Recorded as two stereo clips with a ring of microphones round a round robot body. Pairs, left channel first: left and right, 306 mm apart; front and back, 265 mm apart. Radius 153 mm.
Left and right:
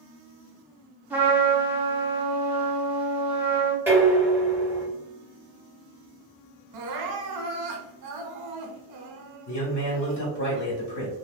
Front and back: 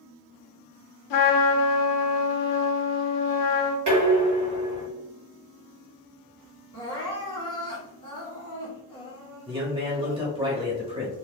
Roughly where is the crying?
Right.